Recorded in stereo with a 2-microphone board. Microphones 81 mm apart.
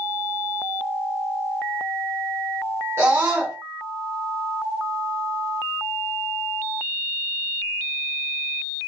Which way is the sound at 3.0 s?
35° right (ahead or behind).